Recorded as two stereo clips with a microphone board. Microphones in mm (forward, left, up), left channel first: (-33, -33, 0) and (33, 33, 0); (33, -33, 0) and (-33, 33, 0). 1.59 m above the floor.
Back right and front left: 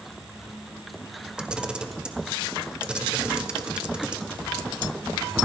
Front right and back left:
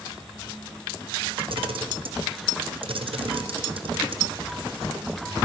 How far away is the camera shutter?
About 0.8 m.